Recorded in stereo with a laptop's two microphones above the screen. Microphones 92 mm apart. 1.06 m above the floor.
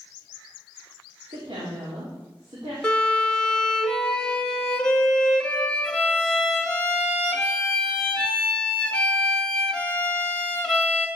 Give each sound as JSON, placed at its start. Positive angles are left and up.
{"t": 1.3, "sound": "a woman speaking", "side_deg": -70, "distance_m": 3.0}
{"t": 2.8, "sound": "a violin", "side_deg": 10, "distance_m": 0.8}